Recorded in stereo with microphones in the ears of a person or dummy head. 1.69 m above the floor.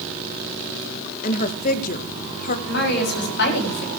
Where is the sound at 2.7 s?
65° left (ahead or behind), 6.5 m.